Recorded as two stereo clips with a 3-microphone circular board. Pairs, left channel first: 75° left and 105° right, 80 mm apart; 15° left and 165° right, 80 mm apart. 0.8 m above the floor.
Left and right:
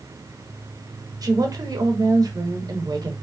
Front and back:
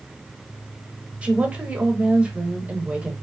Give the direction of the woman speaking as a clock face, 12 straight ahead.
3 o'clock.